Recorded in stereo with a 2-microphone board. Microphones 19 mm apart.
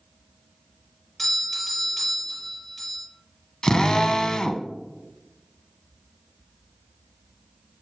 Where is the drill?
40° left (ahead or behind), 0.7 m.